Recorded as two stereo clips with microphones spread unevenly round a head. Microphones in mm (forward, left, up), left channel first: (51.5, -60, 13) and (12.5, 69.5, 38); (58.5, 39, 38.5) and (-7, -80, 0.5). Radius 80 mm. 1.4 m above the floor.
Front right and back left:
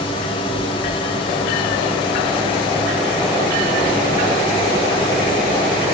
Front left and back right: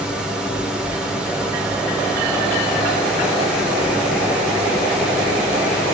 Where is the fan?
20° right, 0.9 m.